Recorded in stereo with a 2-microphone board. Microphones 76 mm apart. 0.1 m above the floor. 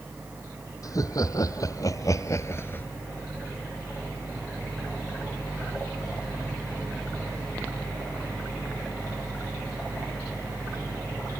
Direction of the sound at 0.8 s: 50° left (ahead or behind).